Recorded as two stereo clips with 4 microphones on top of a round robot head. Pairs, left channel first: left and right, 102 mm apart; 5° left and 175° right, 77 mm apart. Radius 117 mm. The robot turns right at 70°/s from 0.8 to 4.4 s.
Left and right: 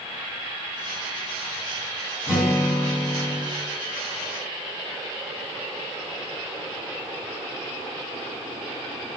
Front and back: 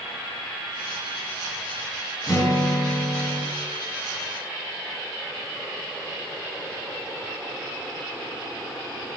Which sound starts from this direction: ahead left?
A guitar, at 2.3 s.